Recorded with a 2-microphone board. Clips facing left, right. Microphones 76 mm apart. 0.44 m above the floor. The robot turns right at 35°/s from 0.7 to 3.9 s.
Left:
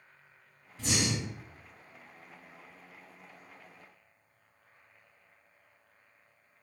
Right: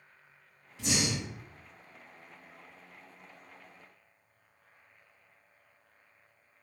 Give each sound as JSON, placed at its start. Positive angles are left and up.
{"t": 0.8, "sound": "breathing", "side_deg": 40, "distance_m": 1.6}